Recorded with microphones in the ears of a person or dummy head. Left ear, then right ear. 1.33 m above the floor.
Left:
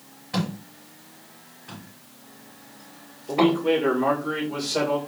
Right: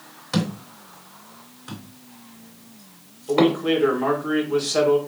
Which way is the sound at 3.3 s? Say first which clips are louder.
Right 1 dB; 45° right (ahead or behind).